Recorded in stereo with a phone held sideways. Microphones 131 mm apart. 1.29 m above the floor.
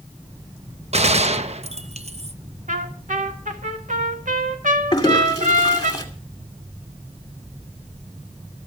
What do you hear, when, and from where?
0.9 s a gunshot: 55° right (ahead or behind), 0.8 m
2.7 s a trumpet: 75° right (ahead or behind), 2 m
4.9 s a toilet flushing: 30° left (ahead or behind), 2.5 m